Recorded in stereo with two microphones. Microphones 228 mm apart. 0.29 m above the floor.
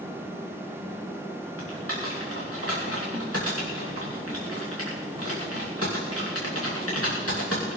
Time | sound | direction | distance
1.6 | typing on a keyboard | 85° left | 5.5 m